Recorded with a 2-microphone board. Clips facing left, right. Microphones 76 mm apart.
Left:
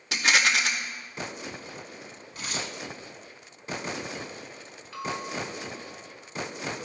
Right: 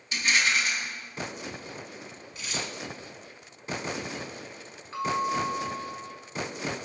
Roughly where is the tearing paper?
Left.